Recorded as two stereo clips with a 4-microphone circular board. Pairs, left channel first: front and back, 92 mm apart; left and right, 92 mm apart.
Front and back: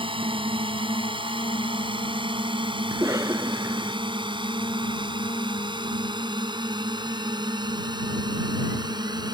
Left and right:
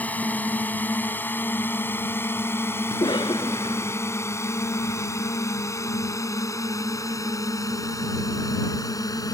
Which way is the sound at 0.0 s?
165° left.